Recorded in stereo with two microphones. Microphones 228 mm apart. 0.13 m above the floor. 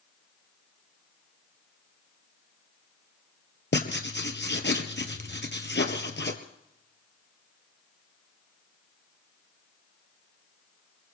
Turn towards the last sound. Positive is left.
turn(degrees=55)  # may be behind; listen again after turning